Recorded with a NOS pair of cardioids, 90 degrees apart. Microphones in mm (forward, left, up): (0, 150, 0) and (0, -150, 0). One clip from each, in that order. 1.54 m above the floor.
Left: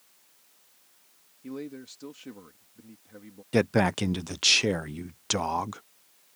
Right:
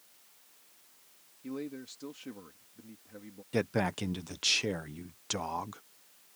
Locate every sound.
1.4 s a man speaking: 10° left
3.5 s a man speaking: 30° left